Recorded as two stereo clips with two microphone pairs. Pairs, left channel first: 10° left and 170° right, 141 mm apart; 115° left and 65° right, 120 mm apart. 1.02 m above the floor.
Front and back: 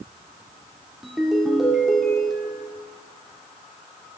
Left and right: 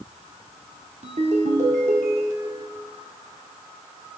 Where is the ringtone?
80° right, 1.9 m.